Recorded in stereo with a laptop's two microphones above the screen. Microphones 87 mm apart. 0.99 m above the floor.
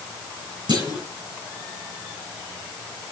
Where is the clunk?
55° right (ahead or behind), 4.5 m.